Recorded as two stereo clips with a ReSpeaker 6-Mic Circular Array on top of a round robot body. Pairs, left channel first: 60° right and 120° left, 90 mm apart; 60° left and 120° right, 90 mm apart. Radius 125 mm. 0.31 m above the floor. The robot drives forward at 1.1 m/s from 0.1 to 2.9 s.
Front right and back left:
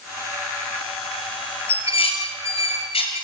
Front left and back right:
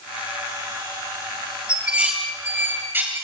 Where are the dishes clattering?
40° right, 6 m; by 3.2 s 50° right, 5 m.